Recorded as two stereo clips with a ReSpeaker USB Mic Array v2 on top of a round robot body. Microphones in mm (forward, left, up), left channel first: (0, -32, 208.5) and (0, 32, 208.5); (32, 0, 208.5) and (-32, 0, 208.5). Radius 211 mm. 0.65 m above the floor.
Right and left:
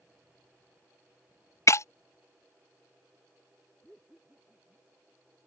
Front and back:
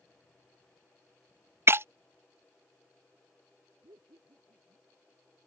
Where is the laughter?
175° right.